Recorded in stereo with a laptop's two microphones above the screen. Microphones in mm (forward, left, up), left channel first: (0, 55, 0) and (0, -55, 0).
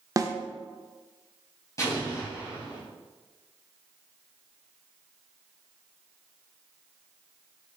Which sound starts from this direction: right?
A snare drum, at 0.2 s.